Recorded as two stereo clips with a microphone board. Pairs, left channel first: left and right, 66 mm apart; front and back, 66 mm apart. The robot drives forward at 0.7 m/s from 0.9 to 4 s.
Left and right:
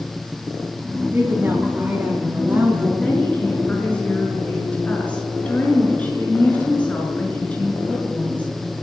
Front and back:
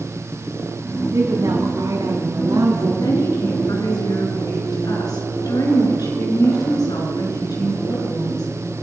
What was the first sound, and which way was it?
A woman speaking, 145° right.